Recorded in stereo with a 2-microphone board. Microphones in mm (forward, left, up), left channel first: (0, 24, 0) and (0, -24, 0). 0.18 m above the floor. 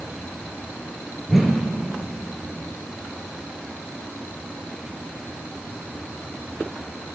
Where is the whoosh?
5° right (ahead or behind), 1.0 m.